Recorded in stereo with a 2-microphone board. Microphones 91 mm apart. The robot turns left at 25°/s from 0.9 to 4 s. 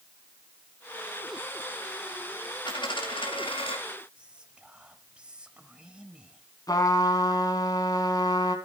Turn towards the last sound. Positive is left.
turn(degrees=45)  # may be behind; listen again after turning